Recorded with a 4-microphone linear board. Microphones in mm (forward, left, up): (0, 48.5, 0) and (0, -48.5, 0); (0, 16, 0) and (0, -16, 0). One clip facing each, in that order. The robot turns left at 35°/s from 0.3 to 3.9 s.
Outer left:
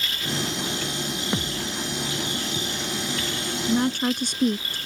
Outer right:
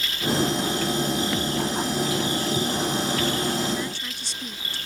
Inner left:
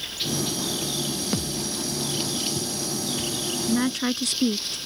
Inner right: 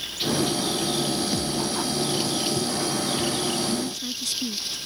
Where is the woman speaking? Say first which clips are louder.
Outer left 7 dB, inner left 4 dB; 55° left (ahead or behind); by 4.8 s 60° left (ahead or behind).